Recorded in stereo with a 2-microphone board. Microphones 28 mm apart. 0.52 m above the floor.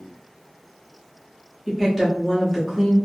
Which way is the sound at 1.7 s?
5° right (ahead or behind).